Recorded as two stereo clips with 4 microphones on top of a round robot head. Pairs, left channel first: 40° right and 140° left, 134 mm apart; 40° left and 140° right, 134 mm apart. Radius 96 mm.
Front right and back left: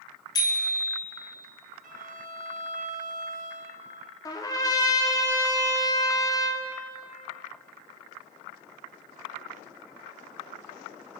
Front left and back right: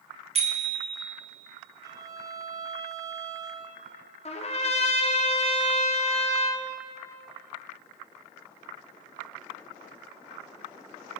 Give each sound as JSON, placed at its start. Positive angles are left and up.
{"t": 0.3, "sound": "a bicycle bell", "azimuth_deg": -100, "distance_m": 2.0}
{"t": 1.8, "sound": "a violin", "azimuth_deg": 155, "distance_m": 1.6}
{"t": 4.2, "sound": "a trumpet", "azimuth_deg": 20, "distance_m": 1.6}